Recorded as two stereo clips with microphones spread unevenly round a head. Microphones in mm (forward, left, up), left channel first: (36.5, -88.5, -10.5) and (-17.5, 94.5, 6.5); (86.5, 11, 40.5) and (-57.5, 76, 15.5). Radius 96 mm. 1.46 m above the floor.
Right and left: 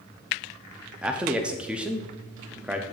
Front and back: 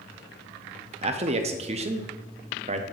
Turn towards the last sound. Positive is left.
turn(degrees=-165)